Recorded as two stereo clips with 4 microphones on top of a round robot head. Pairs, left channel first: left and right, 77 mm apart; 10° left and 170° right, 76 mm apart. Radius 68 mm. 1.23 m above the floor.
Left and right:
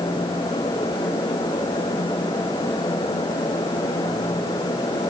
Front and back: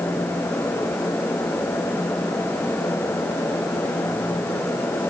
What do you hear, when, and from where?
Only background noise.